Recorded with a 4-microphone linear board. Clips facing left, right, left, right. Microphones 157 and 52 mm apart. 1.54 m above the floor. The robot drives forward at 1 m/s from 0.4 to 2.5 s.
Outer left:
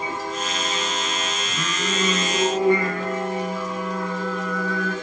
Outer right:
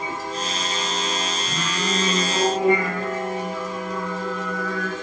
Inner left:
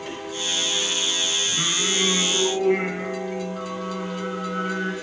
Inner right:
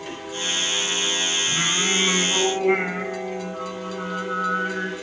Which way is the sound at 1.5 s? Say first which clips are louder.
Outer right 1 dB, inner right 2 dB; 70° right (ahead or behind).